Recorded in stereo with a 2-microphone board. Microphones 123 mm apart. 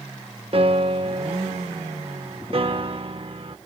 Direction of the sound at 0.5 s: 50° right (ahead or behind).